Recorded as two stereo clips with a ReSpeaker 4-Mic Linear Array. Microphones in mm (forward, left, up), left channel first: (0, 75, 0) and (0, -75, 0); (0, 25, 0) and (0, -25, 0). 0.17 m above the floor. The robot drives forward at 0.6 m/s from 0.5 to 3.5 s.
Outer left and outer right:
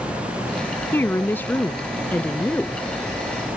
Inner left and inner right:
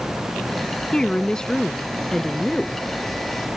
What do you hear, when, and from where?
0.9 s a woman speaking: 15° left (ahead or behind); by 2.8 s 10° left (ahead or behind)